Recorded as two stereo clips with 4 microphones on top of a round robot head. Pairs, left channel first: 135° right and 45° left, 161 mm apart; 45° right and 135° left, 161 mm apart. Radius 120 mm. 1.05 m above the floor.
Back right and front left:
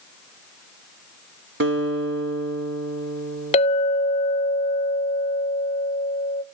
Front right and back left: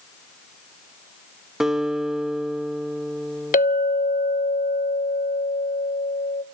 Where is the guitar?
50° left, 2 m.